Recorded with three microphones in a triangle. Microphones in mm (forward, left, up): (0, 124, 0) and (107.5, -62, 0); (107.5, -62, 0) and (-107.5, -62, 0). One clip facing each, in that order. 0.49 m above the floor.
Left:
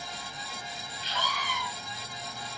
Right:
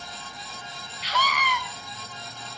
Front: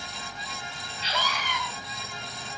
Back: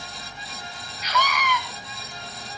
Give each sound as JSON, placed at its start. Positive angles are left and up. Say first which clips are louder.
{"t": 1.0, "sound": "a scream", "louder": "right 7 dB, back 6 dB", "azimuth_deg": -60, "distance_m": 4.5}